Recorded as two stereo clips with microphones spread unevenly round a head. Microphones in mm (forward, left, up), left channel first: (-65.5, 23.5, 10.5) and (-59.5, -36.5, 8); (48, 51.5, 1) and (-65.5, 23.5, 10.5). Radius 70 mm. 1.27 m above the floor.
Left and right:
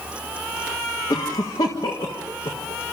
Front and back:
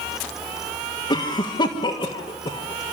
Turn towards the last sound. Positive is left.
turn(degrees=60)